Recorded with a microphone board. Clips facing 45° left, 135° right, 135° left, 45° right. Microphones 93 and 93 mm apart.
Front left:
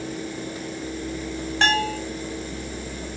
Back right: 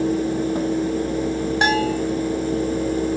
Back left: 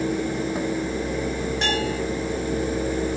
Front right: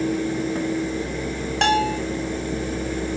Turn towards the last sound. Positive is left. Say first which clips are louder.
# back right 2 dB, front right 9 dB
turn(degrees=-60)